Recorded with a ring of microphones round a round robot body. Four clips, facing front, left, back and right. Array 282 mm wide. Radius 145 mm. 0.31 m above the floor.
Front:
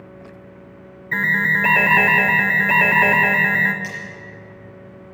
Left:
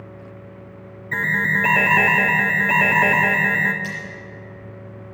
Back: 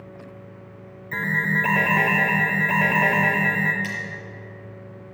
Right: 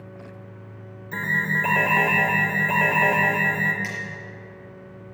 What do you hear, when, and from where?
1.1 s an alarm: 35° left, 1.4 m
3.8 s cutlery clinking: 120° right, 4.5 m